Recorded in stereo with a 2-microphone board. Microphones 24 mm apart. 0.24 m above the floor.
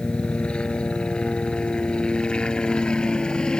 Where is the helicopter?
50° left (ahead or behind); by 3.6 s 40° left (ahead or behind).